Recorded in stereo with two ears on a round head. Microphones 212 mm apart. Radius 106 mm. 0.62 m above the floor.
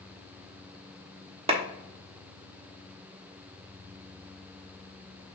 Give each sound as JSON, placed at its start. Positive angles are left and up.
{"t": 1.5, "sound": "a clap", "side_deg": -25, "distance_m": 1.0}